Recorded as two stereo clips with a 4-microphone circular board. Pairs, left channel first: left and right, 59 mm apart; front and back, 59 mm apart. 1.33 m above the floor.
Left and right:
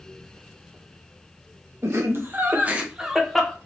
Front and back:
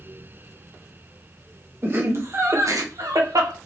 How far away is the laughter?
About 1.4 m.